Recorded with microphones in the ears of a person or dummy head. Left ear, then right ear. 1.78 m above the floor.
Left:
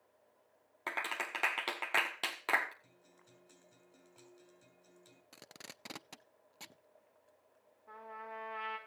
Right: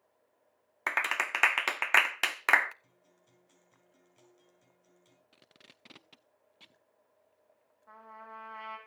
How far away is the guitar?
About 7.5 m.